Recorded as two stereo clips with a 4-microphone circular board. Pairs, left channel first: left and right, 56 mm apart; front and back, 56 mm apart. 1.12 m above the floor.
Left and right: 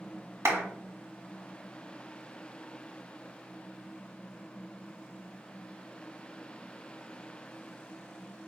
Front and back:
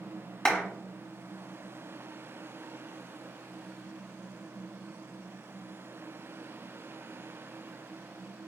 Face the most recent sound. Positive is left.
turn(degrees=-75)